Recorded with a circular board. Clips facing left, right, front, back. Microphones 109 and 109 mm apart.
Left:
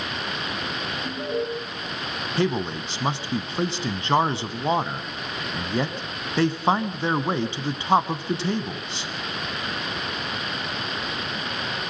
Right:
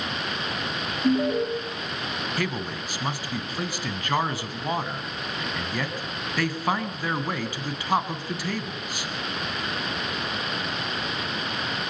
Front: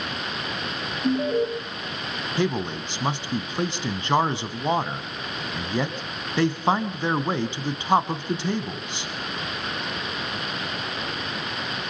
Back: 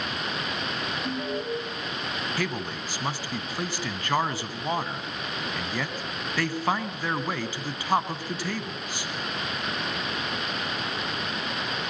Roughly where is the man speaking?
Ahead left.